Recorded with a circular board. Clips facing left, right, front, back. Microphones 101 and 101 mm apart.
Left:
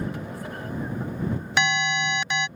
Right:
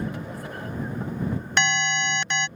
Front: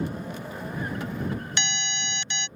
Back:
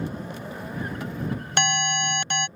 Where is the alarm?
175° left.